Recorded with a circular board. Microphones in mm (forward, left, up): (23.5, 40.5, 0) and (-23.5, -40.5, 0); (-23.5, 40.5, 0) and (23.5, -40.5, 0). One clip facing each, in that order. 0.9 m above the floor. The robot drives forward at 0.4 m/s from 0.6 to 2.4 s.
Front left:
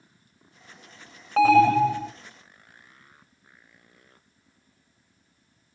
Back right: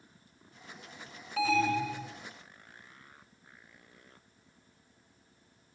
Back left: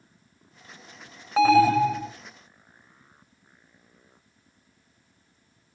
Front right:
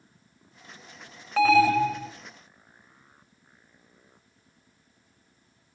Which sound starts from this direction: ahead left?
An alarm, at 1.4 s.